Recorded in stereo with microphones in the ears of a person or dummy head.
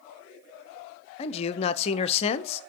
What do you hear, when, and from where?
1.2 s a man speaking: 35° left (ahead or behind), 0.7 m